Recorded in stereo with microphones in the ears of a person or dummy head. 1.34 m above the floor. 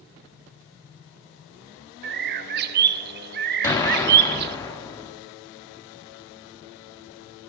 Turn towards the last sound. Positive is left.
turn(degrees=15)  # may be behind; listen again after turning